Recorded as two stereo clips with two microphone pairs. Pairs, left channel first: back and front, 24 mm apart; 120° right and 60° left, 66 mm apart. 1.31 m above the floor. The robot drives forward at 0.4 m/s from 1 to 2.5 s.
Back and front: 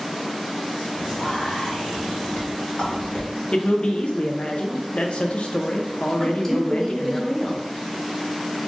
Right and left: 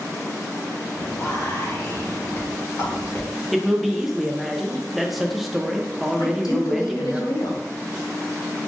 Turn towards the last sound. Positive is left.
turn(degrees=-105)